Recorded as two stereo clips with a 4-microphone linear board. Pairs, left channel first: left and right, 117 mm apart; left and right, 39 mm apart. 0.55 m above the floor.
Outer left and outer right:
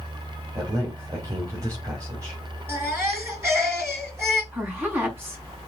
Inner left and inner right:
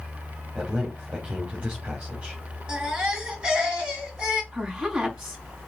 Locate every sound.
0.6 s a man speaking: 25° right (ahead or behind), 4 m
2.7 s a baby crying: 20° right (ahead or behind), 5.5 m
4.5 s a woman speaking: 20° right (ahead or behind), 5.5 m